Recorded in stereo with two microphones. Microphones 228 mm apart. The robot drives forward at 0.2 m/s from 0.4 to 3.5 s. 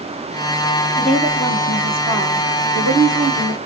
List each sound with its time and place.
1.0 s a woman speaking: 5° right (ahead or behind), 1.3 m